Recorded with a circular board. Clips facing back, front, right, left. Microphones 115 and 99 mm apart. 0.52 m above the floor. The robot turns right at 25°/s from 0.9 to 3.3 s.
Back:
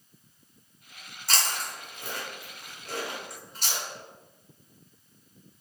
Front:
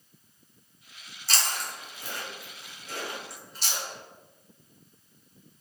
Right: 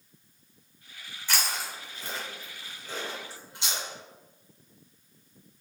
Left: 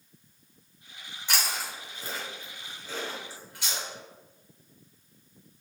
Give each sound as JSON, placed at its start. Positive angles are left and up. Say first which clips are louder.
{"t": 1.3, "sound": "chewing", "louder": "back 1 dB, even", "azimuth_deg": 155, "distance_m": 1.5}